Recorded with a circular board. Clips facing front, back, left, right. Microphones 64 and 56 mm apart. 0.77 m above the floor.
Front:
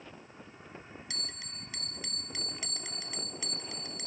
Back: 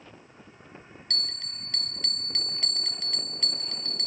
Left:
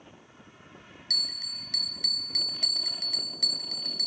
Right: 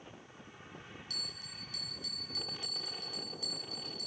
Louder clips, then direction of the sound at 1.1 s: Back 8 dB, left 8 dB; 80° left.